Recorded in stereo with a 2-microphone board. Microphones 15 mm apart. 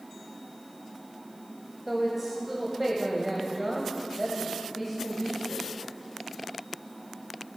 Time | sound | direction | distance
1.9 | a woman speaking | 15° right (ahead or behind) | 1.1 m